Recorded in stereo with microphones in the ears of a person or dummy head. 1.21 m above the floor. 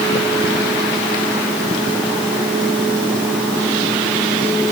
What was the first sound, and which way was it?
Only background noise.